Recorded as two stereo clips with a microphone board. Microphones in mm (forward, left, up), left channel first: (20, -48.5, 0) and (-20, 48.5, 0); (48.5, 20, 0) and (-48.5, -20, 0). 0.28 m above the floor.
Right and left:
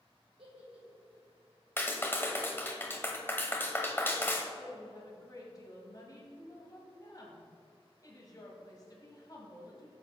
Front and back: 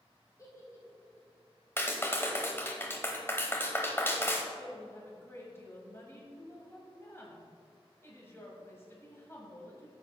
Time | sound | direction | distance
0.4 | a giggle | 85° left | 2.5 m
1.8 | a clap | 20° right | 0.8 m
4.5 | a woman speaking | 35° right | 1.5 m